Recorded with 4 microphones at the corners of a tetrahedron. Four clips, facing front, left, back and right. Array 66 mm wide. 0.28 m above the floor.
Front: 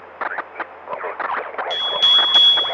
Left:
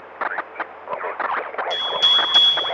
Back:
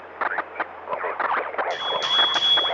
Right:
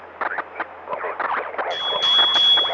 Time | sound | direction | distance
1.7 | a bicycle bell | 20° left | 6 m